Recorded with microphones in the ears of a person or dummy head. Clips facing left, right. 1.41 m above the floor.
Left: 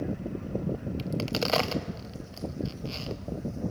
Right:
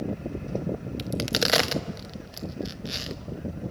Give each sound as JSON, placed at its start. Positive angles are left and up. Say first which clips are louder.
{"t": 1.0, "sound": "a crack", "louder": "right 2 dB", "side_deg": -15, "distance_m": 0.9}